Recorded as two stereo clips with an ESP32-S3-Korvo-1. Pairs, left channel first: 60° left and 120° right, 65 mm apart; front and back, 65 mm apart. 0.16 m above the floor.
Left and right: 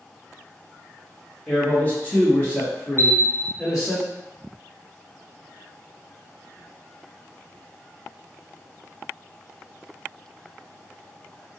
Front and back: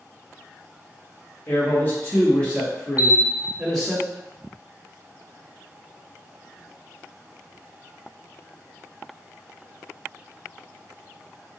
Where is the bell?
120° right, 1.2 m.